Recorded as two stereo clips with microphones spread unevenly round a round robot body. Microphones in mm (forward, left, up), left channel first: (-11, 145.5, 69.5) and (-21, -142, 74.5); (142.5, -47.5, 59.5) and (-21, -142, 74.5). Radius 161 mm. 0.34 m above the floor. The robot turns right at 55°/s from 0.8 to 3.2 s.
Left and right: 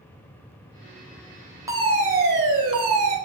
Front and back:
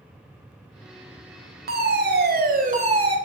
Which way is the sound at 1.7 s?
170° right.